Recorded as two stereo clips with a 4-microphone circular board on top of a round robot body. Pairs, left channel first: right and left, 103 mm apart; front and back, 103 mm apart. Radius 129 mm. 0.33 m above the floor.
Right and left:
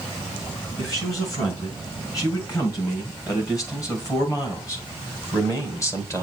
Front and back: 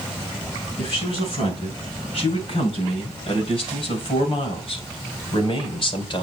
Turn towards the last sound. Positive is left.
turn(degrees=-30)